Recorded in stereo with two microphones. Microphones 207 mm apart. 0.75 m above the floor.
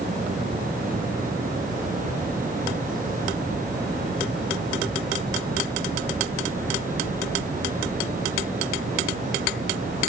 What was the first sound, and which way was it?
Only background noise.